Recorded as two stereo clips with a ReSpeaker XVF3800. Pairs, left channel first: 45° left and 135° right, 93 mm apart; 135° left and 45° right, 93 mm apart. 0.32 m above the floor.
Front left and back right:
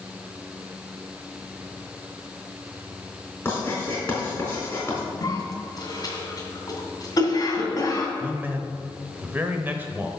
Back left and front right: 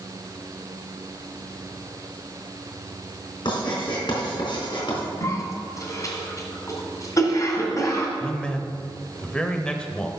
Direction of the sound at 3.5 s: 115° left.